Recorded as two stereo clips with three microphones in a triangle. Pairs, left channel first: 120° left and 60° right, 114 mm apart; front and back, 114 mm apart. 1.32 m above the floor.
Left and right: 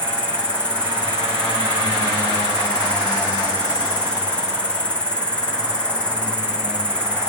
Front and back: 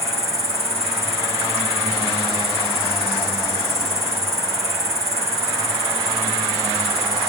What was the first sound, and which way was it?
An insect, 160° right.